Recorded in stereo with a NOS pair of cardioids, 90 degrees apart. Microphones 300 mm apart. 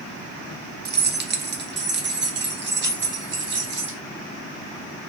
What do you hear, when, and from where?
0.8 s keys jangling: 35° right, 0.8 m; by 4.0 s 40° right, 2.5 m